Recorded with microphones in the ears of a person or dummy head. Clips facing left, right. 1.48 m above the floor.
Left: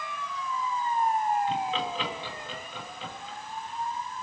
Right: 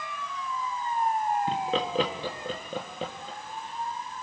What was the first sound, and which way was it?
Laughter, 35° right (ahead or behind).